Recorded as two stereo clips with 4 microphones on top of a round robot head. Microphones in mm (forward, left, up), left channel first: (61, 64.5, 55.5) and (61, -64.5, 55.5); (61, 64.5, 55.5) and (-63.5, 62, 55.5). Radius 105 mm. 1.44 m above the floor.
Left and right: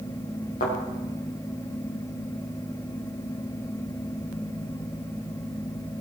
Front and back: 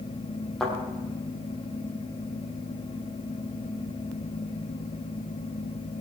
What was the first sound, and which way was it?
A thud, 85° left.